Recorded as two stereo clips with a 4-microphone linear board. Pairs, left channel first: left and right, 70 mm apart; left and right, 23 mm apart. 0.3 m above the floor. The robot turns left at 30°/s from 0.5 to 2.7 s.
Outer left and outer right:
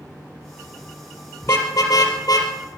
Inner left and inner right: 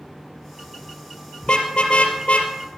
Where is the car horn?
40° left (ahead or behind), 4 m; by 2.8 s 75° left (ahead or behind), 4 m.